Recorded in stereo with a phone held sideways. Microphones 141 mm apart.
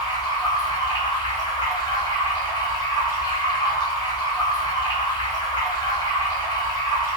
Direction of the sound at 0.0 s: 30° left (ahead or behind).